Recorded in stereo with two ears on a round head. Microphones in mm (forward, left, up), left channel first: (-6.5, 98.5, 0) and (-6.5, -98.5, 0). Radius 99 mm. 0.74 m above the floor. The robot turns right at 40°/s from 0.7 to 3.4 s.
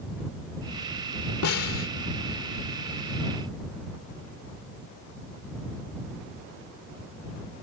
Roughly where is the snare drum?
Left.